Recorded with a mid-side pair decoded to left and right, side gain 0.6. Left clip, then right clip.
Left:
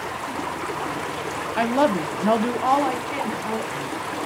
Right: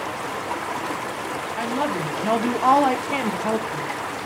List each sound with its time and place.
1.6 s a woman speaking: 40° left, 0.8 m; by 3.9 s 50° right, 1.0 m